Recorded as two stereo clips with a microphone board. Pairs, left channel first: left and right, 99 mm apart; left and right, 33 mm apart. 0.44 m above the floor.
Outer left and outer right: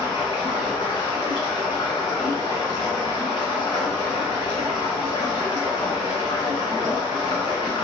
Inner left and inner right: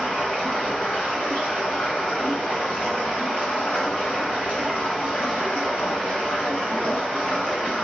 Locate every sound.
0.0 s running water: 55° left (ahead or behind), 1.4 m